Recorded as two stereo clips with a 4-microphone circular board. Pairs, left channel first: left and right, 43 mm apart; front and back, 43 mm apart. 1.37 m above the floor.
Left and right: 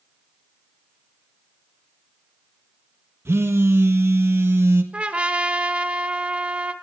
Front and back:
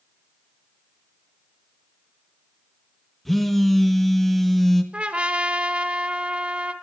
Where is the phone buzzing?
85° right, 1.6 m.